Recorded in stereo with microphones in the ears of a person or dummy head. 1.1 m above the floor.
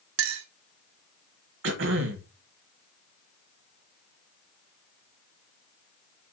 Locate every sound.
0.2 s a clink: 75° right (ahead or behind), 0.8 m
1.6 s throat clearing: 60° right (ahead or behind), 1.3 m